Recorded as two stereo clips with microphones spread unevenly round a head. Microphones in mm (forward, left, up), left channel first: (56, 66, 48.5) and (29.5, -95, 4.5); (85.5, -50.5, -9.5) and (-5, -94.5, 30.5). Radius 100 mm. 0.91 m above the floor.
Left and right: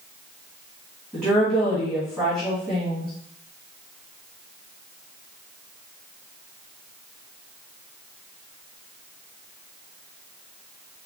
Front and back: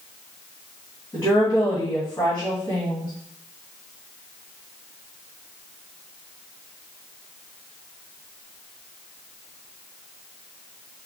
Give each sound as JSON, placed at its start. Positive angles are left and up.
{"t": 1.1, "sound": "a woman speaking", "azimuth_deg": -35, "distance_m": 1.6}